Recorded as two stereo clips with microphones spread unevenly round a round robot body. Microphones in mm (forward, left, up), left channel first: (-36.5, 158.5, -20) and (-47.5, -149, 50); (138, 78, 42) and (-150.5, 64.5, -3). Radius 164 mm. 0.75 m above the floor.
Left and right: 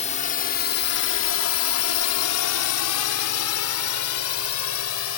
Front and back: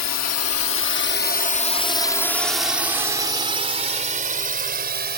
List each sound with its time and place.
0.0 s a drone: 25° left; by 5.2 s 125° left